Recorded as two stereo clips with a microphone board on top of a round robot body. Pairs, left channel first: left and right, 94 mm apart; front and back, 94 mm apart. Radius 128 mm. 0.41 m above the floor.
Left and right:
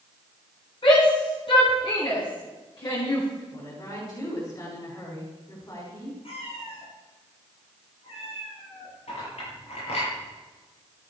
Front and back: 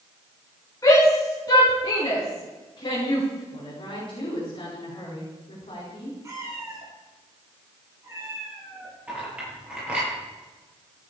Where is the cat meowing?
115° left, 7.5 m.